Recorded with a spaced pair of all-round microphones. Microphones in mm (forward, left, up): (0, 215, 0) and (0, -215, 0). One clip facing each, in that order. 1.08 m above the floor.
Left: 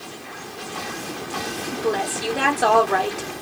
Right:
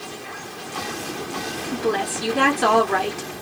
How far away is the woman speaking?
About 2.0 m.